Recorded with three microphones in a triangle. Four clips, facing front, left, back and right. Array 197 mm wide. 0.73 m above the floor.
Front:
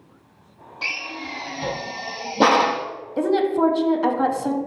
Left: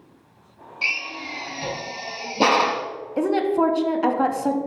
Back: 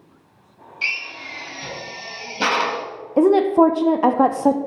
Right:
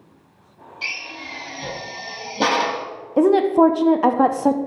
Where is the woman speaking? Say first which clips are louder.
Right 6 dB, back 5 dB; 150° right, 0.5 m.